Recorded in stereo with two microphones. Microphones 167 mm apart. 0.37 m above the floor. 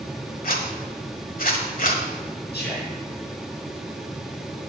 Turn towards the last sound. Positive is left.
turn(degrees=75)  # may be behind; listen again after turning